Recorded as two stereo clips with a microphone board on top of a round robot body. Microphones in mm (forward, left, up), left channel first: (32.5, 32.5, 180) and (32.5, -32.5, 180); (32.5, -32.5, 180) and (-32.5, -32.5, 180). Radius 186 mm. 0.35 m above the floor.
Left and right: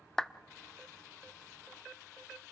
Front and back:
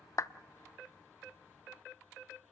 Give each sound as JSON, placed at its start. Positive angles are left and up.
{"t": 0.2, "sound": "a clap", "azimuth_deg": 10, "distance_m": 1.0}